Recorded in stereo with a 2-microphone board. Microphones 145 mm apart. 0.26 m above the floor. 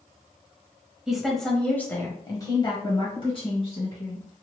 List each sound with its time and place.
1.1 s a woman speaking: 5° right (ahead or behind), 1.1 m; by 4.2 s 45° left (ahead or behind), 1.7 m